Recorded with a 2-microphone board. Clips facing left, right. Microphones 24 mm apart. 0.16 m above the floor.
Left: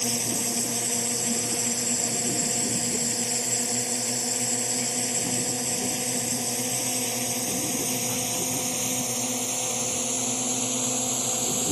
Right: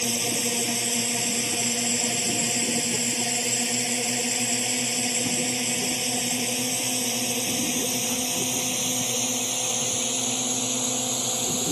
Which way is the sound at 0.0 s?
60° right (ahead or behind).